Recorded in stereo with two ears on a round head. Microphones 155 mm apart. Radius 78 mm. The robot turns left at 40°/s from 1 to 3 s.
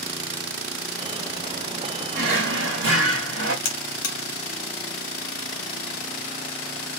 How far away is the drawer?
About 1.9 m.